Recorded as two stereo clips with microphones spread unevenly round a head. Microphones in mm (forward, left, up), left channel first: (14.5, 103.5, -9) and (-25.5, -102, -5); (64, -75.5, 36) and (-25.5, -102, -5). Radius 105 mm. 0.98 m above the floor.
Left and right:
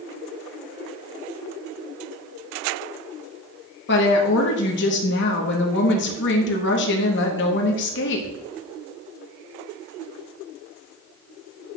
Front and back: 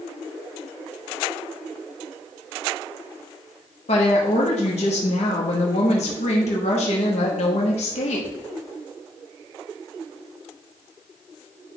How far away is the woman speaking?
About 0.9 m.